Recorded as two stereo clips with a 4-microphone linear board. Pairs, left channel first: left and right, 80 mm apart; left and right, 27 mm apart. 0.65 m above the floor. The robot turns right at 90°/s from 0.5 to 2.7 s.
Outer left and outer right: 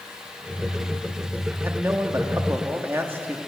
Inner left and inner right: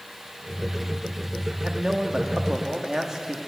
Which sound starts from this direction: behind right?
A man speaking, at 1.6 s.